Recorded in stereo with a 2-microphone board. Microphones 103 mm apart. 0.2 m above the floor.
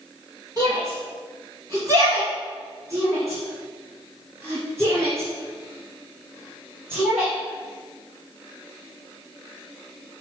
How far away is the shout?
About 1.9 m.